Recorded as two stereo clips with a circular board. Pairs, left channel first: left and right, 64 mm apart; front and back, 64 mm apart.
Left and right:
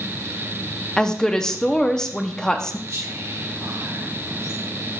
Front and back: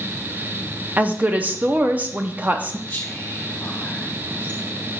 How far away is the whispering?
About 2 m.